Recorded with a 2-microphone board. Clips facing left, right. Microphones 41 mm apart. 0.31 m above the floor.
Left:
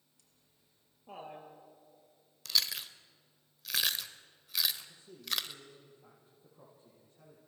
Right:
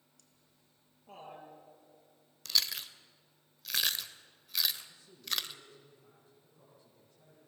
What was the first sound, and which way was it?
Laughter, 20° left (ahead or behind).